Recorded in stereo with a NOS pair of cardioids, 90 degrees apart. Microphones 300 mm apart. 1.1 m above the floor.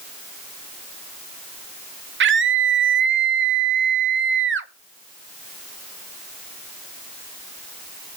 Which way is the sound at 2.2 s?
45° right.